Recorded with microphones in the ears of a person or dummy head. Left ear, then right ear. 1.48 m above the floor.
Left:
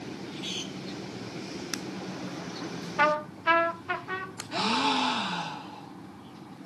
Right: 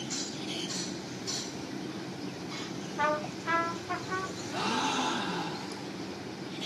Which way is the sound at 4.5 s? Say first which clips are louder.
Left 4 dB; 70° left (ahead or behind).